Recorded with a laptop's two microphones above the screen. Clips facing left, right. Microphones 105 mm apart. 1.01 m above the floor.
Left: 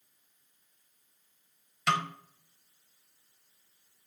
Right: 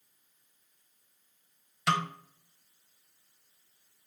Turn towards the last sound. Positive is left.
turn(degrees=-5)  # may be behind; listen again after turning